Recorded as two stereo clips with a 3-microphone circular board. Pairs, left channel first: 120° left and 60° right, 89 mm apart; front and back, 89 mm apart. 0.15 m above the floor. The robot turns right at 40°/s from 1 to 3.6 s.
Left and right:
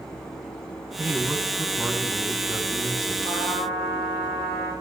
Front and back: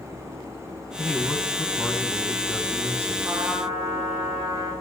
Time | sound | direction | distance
1.0 | a man speaking | 45° right | 1.1 m
3.2 | a trumpet | 120° left | 4 m